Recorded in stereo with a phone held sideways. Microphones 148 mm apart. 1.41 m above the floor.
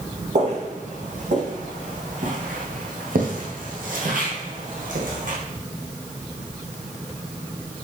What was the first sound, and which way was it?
Footsteps, 55° right (ahead or behind).